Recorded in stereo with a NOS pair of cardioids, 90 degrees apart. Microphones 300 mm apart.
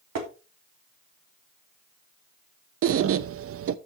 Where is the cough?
No cough in this recording.